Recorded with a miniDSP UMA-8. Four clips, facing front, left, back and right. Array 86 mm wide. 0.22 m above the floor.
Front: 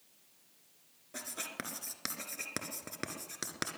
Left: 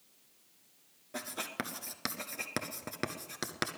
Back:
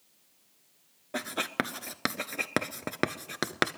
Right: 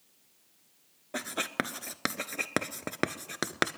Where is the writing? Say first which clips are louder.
Right 6 dB, back 12 dB; 140° right, 0.7 m.